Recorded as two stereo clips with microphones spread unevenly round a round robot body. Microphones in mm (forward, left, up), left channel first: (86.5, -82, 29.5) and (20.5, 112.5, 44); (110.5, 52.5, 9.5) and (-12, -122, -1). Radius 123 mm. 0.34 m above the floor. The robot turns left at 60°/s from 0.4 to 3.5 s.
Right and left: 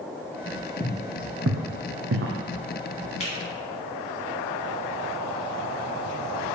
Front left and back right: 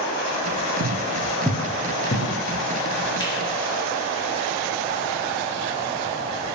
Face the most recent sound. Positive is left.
turn(degrees=-30)